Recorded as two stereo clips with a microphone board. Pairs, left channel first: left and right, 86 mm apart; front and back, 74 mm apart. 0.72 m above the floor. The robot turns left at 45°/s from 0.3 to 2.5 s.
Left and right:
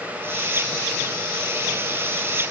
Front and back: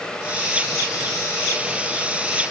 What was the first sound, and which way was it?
Only background noise.